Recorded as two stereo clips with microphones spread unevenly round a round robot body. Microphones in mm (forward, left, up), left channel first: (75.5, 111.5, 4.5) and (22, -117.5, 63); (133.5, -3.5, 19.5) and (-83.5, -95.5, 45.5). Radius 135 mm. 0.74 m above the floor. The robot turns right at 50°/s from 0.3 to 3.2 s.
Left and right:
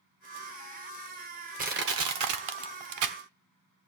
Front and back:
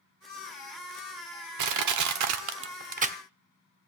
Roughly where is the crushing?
Behind.